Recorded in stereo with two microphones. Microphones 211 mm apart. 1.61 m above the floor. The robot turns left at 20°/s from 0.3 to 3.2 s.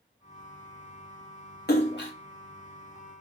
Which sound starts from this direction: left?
A splash, at 1.7 s.